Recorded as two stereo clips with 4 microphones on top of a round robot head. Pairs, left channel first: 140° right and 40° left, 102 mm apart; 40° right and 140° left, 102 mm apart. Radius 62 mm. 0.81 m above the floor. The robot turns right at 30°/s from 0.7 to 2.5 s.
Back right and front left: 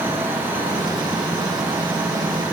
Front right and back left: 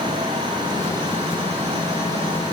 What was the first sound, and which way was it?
Only background noise.